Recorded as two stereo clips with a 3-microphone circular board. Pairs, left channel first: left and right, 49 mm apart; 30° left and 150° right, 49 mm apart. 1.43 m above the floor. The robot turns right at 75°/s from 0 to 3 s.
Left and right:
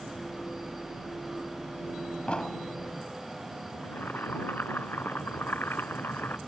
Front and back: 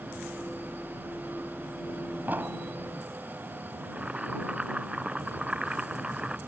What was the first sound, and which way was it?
An explosion, 155° left.